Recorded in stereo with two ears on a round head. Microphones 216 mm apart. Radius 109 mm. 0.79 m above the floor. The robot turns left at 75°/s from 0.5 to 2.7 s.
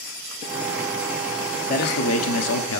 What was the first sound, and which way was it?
A man speaking, 145° left.